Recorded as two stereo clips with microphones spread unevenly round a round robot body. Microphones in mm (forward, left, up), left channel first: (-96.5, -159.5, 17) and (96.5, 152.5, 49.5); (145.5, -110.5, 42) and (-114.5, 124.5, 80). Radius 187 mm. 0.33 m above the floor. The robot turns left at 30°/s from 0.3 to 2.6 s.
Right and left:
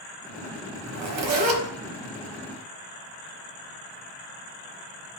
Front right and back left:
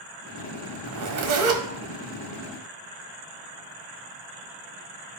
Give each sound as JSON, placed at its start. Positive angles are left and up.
{"t": 0.9, "sound": "a zipper", "azimuth_deg": 105, "distance_m": 1.4}